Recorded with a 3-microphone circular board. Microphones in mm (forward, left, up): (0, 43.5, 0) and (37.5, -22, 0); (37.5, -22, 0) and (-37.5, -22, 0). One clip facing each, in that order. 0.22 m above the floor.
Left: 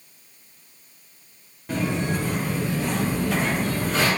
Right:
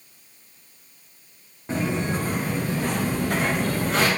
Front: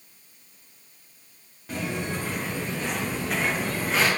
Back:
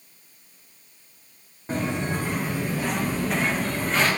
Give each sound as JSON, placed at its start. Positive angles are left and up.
{"t": 1.7, "sound": "footsteps", "azimuth_deg": -120, "distance_m": 2.5}